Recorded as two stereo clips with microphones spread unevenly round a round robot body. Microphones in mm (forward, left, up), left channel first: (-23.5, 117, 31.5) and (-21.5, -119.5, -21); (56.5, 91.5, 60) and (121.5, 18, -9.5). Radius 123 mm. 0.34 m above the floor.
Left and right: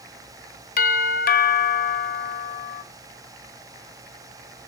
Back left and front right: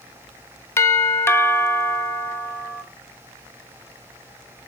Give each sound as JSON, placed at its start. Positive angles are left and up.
{"t": 0.8, "sound": "a doorbell", "azimuth_deg": 35, "distance_m": 1.6}